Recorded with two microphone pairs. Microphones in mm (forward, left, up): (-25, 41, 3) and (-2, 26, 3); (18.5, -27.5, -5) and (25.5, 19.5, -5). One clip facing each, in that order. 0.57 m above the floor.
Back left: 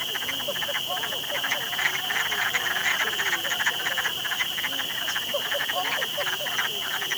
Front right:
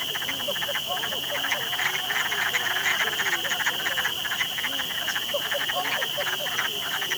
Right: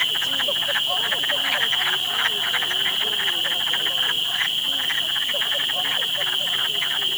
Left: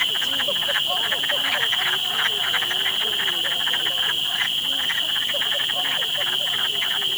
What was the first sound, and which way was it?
Only background noise.